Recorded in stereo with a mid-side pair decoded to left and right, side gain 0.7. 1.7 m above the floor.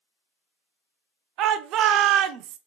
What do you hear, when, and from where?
1.4 s a shout: 55° right, 0.6 m